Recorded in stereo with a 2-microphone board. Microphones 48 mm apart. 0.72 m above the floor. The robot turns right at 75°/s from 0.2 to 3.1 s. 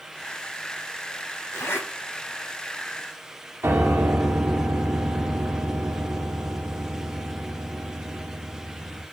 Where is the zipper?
70° left (ahead or behind), 4 m; by 1.9 s 45° left (ahead or behind), 4 m.